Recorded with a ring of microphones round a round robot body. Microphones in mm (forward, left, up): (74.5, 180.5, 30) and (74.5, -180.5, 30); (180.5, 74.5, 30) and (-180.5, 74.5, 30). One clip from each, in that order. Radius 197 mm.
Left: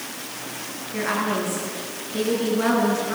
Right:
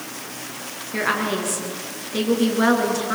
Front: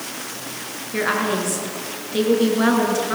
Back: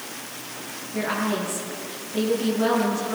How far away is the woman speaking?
About 6.5 m.